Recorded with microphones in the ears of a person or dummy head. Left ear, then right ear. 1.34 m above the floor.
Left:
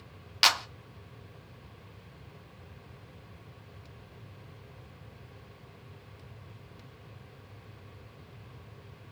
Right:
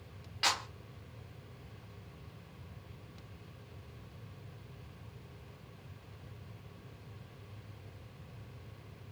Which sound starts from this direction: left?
A clap, at 0.4 s.